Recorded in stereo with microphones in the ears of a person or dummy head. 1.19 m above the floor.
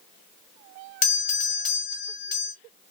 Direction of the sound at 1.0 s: 45° left (ahead or behind).